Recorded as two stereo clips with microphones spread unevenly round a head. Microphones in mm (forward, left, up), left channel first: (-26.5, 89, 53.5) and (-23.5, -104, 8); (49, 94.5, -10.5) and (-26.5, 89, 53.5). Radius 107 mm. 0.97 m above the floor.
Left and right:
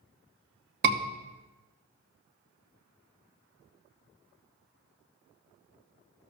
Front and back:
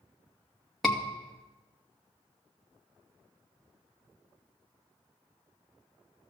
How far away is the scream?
About 2 m.